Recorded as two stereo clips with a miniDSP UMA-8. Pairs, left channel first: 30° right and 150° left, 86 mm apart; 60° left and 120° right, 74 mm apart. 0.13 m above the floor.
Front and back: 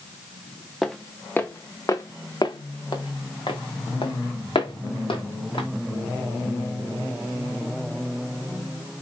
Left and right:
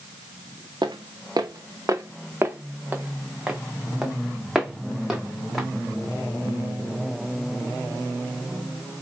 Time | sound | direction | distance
0.8 | footsteps | 120° right | 0.8 m